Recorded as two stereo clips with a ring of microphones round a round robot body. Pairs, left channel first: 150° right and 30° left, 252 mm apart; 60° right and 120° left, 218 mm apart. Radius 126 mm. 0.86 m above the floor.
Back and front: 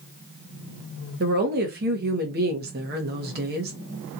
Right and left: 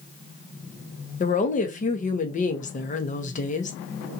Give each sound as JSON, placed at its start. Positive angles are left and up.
{"t": 1.2, "sound": "a woman speaking", "azimuth_deg": -15, "distance_m": 0.8}